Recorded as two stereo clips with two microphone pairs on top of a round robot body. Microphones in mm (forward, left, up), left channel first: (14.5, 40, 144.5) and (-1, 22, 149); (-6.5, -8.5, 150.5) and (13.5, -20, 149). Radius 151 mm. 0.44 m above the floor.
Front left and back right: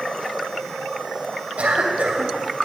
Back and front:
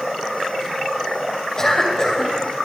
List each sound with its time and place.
1.6 s a cough: 145° right, 2.5 m